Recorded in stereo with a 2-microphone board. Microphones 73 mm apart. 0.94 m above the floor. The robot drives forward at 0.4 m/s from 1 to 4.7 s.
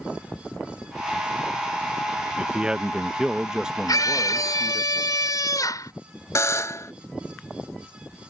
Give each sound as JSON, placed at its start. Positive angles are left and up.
{"t": 2.4, "sound": "a man speaking", "side_deg": -15}
{"t": 3.9, "sound": "a scream", "side_deg": 65}
{"t": 6.3, "sound": "a buzzer", "side_deg": 50}